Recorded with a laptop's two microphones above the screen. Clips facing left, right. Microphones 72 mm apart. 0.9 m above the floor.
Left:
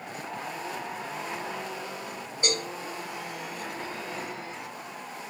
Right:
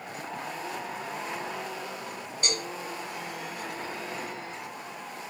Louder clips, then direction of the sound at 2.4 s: Left 3 dB; 20° left (ahead or behind).